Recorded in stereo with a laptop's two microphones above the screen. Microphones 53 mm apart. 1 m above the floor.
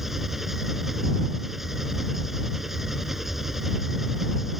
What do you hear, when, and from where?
0.0 s an engine running: 5° right (ahead or behind)